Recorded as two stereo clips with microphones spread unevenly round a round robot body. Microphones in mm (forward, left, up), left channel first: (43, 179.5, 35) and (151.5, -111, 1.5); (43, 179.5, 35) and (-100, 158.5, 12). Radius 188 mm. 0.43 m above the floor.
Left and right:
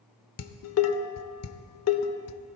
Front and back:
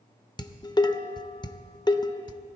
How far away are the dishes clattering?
About 0.9 m.